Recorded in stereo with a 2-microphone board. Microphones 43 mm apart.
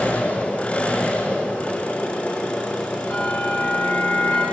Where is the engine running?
30° left (ahead or behind), 6.5 m.